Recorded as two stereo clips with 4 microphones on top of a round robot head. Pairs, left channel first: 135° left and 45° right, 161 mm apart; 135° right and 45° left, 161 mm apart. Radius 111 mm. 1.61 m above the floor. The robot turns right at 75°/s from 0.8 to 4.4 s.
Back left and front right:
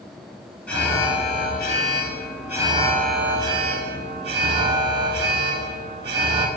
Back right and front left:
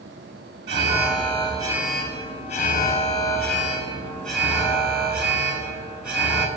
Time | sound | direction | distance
0.7 | an alarm | 50° left | 8.5 m